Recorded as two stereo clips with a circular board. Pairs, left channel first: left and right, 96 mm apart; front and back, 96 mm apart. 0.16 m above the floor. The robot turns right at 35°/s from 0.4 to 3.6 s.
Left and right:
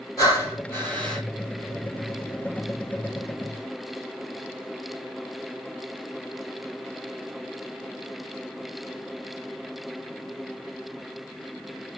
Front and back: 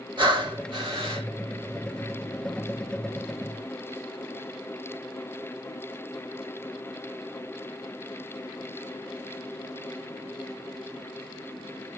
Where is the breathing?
145° left, 1.9 m; by 1.2 s 175° left, 1.9 m.